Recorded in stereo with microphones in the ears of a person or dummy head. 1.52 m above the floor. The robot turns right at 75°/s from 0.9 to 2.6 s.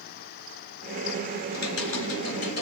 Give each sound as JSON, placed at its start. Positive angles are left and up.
{"t": 1.5, "sound": "typing on a keyboard", "azimuth_deg": 50, "distance_m": 2.5}